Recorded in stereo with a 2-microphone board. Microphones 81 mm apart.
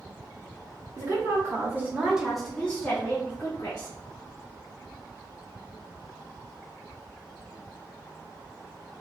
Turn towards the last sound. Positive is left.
turn(degrees=45)  # may be behind; listen again after turning